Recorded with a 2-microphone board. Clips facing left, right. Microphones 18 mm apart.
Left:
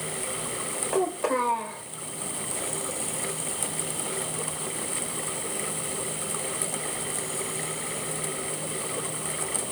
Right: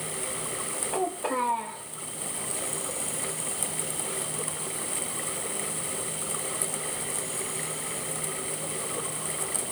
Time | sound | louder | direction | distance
0.9 | a child speaking | left 4 dB | 65° left (ahead or behind) | 3.5 m